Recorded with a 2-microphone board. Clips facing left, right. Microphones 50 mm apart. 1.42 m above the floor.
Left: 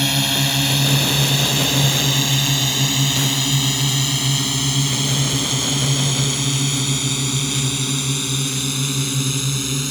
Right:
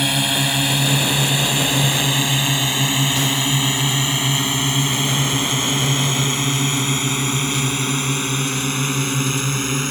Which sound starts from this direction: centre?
A drone, at 0.0 s.